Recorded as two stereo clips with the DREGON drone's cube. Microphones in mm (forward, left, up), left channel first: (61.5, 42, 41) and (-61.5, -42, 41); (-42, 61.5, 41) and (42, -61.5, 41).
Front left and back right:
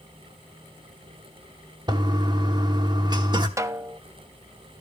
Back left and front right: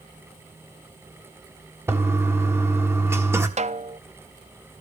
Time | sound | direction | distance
1.9 | a toilet flushing | 115° right | 1.4 m
3.6 | a snare drum | 80° right | 0.6 m